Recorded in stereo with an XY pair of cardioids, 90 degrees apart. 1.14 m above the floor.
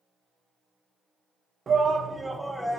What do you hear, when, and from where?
1.7 s a shout: 45° right, 0.6 m; by 2.8 s 5° left, 0.9 m